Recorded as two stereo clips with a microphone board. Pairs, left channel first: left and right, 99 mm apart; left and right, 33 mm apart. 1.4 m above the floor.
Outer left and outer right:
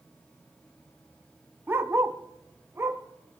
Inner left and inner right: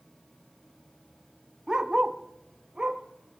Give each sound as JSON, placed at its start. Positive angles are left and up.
{"t": 1.7, "sound": "a dog barking", "side_deg": -25, "distance_m": 1.0}